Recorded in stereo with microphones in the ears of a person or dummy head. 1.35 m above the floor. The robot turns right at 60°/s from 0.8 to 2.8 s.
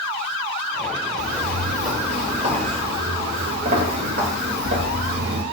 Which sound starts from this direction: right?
Footsteps, at 1.2 s.